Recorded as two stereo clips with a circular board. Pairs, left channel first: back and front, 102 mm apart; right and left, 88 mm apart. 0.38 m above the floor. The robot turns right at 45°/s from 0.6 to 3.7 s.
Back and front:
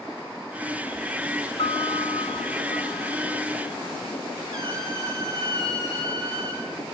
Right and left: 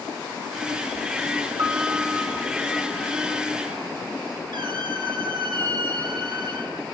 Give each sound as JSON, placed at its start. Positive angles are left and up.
{"t": 1.6, "sound": "a piano", "azimuth_deg": 135, "distance_m": 1.4}
{"t": 4.5, "sound": "a squeak", "azimuth_deg": 50, "distance_m": 6.0}